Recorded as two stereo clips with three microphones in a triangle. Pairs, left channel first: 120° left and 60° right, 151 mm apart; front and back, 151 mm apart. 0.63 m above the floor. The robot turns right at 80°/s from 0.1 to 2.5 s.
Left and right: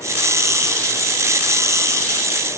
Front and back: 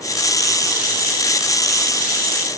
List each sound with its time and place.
Only background noise.